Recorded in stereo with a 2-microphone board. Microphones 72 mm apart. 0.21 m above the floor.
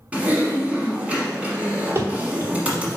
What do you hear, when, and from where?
0.1 s typing on a keyboard: 20° right (ahead or behind), 1.2 m
1.9 s running footsteps: 35° right (ahead or behind), 1.2 m